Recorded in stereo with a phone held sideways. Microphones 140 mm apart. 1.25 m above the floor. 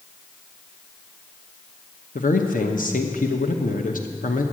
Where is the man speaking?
70° left (ahead or behind), 0.8 m.